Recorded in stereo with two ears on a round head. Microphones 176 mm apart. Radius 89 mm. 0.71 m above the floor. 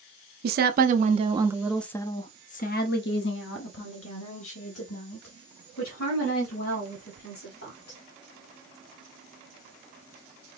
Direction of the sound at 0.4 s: 50° right (ahead or behind).